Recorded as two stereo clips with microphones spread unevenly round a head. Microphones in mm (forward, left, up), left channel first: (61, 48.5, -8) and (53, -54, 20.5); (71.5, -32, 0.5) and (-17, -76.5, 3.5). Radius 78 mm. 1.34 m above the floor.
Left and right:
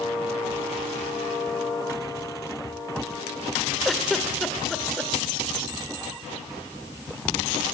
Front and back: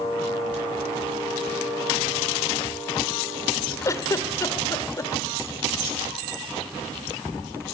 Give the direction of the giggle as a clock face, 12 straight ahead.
1 o'clock.